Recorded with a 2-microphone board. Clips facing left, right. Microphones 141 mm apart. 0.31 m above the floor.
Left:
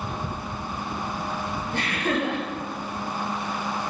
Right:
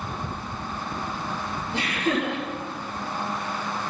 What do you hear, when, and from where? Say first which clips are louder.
1.7 s laughter: right 1 dB; 55° left (ahead or behind), 4.5 m